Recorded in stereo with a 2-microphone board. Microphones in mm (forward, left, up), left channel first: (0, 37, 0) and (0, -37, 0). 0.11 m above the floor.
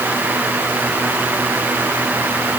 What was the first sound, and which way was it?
Only background noise.